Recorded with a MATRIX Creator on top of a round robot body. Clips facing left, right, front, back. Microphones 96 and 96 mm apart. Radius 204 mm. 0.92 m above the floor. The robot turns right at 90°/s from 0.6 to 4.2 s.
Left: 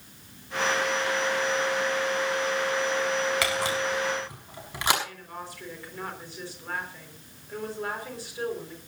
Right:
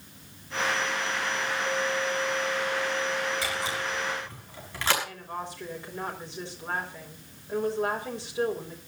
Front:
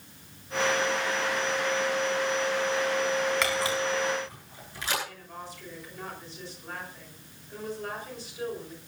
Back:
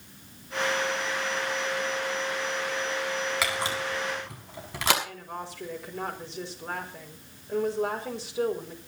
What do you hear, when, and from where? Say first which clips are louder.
3.4 s a camera shutter: left 4 dB, front 2 dB; 95° left, 6 m; by 4.9 s 165° left, 6 m
5.0 s a woman speaking: right 3 dB, back 4 dB; 155° right, 5 m